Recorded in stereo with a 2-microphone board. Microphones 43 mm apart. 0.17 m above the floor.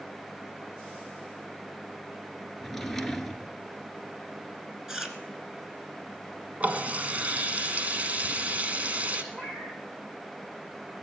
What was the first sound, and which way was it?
A drawer, 5° left (ahead or behind).